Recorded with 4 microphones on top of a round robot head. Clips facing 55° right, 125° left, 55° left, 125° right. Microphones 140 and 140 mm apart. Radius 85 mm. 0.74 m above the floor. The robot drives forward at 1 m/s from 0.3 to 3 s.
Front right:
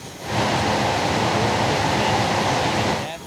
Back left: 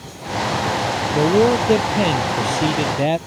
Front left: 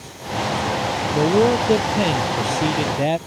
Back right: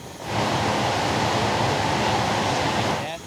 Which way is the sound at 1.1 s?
85° left.